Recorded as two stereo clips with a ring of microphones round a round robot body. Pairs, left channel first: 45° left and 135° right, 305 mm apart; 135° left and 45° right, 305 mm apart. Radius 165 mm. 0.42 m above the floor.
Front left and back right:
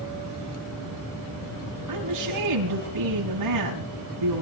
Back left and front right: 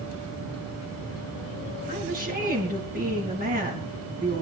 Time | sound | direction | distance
1.9 | a woman speaking | 105° right | 4 m